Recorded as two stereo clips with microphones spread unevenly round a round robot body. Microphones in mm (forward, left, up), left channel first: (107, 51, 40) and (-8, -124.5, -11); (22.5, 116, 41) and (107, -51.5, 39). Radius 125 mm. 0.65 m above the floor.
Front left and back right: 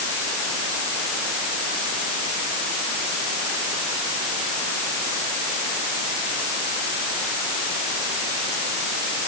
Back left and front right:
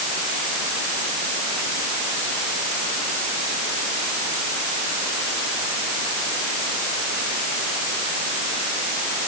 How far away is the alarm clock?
I don't hear an alarm clock.